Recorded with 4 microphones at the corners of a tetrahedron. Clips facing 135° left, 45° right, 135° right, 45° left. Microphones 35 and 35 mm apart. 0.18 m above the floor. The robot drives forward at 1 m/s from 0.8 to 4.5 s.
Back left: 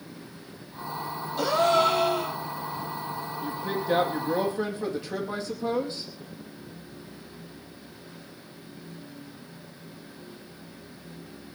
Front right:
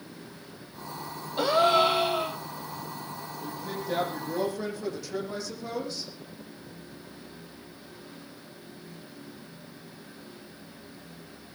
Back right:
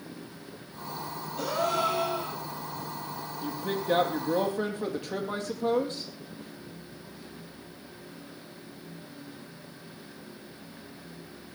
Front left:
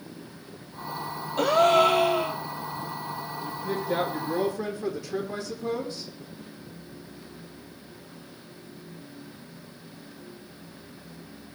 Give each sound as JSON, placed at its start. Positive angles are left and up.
{"t": 1.4, "sound": "a gasp", "azimuth_deg": 20, "distance_m": 3.0}
{"t": 3.4, "sound": "a woman speaking", "azimuth_deg": -165, "distance_m": 5.0}